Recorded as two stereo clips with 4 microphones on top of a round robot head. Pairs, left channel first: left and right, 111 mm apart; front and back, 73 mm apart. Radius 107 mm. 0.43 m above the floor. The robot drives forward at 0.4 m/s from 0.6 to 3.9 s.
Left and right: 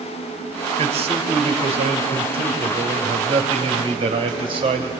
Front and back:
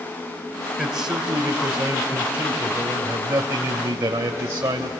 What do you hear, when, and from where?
0.8 s a man speaking: 90° right, 2.5 m; by 4.9 s 120° right, 3 m